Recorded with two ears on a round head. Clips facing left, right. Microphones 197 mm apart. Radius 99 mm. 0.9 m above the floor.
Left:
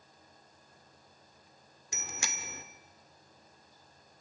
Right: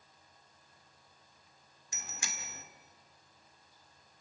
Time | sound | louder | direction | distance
1.9 | a bicycle bell | left 5 dB | 55° left (ahead or behind) | 2 m